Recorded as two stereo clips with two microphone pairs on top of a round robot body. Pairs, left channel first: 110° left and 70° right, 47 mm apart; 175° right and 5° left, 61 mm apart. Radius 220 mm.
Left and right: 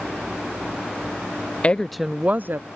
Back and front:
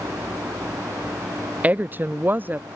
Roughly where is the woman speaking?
Left.